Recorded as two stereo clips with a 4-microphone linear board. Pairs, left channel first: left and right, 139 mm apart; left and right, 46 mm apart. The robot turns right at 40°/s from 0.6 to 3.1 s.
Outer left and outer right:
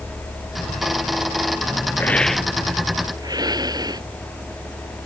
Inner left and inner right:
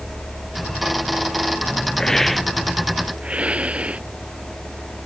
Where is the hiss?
165° left; by 4.0 s 150° right.